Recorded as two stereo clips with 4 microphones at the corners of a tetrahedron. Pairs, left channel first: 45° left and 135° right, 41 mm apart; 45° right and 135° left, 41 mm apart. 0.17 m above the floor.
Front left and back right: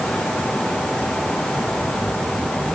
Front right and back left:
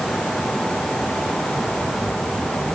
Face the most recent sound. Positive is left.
No sound to turn to.